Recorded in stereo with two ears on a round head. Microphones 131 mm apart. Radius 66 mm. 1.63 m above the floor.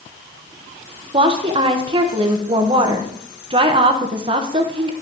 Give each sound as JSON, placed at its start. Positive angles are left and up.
{"t": 1.1, "sound": "a woman speaking", "side_deg": -35, "distance_m": 1.1}